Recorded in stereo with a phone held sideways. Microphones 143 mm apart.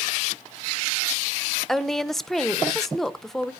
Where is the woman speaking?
Centre (ahead or behind), 0.7 m.